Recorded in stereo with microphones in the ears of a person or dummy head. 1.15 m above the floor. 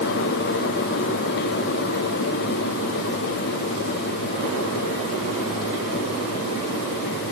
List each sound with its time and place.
Only background noise.